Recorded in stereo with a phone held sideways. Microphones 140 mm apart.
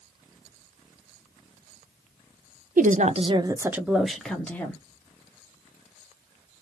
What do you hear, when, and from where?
2.8 s a woman speaking: 70° right (ahead or behind), 0.6 m; by 4.8 s 15° left (ahead or behind), 1.3 m